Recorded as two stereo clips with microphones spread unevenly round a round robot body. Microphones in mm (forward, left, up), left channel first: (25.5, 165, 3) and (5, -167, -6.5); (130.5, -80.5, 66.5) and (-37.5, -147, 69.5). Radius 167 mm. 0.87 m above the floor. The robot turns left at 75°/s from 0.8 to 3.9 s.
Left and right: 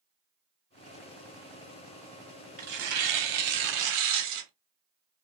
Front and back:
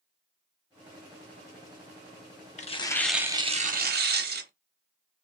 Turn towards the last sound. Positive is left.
turn(degrees=-130)